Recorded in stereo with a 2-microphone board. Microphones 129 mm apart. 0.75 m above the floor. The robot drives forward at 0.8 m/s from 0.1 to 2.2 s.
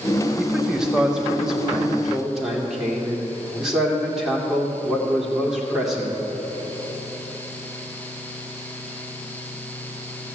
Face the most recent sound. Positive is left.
turn(degrees=-5)  # may be behind; listen again after turning